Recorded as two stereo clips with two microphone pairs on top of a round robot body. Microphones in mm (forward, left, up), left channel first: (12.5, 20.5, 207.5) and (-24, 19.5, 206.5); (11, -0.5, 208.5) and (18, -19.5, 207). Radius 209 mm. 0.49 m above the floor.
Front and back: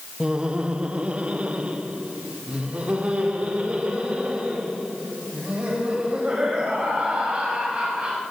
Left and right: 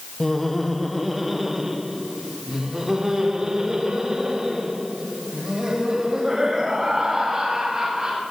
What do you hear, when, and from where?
0.2 s laughter: 175° right, 1.1 m; by 8.2 s 125° right, 5.5 m